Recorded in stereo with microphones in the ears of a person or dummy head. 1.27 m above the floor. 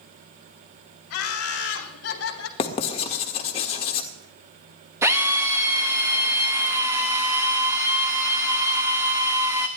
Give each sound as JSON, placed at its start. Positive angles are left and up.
{"t": 1.1, "sound": "laughter", "side_deg": 70, "distance_m": 2.5}
{"t": 2.6, "sound": "writing", "side_deg": 40, "distance_m": 1.5}
{"t": 5.0, "sound": "a drill", "side_deg": -15, "distance_m": 1.3}